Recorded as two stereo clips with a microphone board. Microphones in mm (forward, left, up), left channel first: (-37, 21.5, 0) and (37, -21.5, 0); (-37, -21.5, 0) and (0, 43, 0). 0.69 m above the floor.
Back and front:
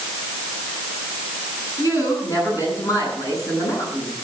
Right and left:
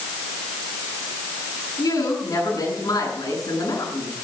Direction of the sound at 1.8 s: 160° right.